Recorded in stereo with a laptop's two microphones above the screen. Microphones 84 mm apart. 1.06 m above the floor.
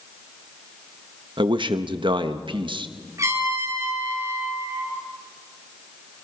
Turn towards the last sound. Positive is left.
turn(degrees=-35)  # may be behind; listen again after turning